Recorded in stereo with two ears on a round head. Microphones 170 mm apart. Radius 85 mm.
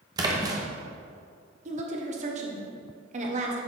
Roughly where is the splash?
Right.